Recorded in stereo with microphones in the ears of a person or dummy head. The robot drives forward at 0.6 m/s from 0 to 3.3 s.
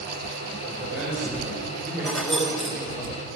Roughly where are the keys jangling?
Centre.